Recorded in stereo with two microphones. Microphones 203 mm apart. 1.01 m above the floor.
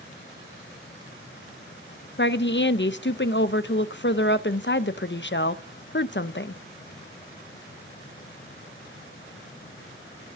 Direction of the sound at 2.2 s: 60° left (ahead or behind).